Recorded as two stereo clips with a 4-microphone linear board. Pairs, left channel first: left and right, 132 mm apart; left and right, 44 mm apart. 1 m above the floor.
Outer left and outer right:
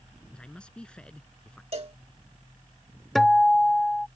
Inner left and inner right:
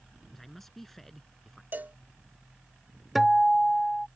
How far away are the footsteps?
I don't hear footsteps.